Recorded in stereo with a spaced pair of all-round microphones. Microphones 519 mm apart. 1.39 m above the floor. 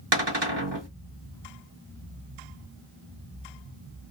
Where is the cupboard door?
55° right (ahead or behind), 1.1 m.